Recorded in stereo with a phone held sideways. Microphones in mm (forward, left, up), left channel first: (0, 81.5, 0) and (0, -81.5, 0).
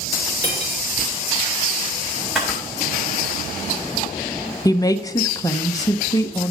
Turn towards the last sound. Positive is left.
turn(degrees=20)  # may be behind; listen again after turning